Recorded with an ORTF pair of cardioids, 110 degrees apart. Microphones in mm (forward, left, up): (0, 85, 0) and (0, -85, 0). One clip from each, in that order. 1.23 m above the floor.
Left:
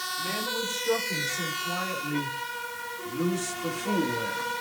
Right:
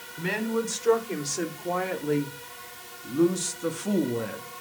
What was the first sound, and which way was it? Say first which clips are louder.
A woman speaking: right 5 dB; 65° right.